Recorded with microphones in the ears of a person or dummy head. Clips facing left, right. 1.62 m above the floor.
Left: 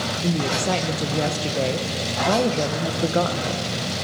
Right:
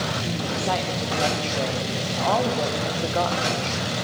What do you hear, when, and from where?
0.2 s a woman speaking: 30° left (ahead or behind), 1.7 m